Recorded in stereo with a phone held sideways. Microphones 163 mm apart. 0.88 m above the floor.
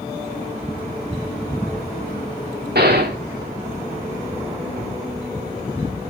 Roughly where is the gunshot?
Right.